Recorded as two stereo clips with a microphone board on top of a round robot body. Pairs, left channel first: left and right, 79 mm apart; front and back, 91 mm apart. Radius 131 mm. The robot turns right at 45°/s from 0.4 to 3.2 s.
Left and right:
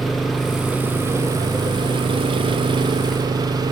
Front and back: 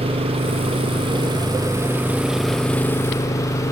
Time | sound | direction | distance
0.0 | an engine running | straight behind | ?